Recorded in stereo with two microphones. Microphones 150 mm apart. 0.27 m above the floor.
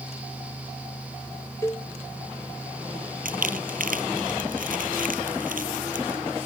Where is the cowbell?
20° left (ahead or behind).